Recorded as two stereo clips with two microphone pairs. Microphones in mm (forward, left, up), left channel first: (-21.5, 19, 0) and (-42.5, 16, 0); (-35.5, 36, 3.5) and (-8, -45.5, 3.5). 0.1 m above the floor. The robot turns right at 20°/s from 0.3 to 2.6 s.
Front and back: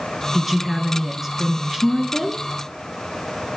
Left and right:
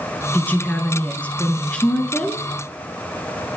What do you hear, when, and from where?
0.3 s a woman speaking: 130° left, 1.1 m; by 2.4 s 175° left, 1.1 m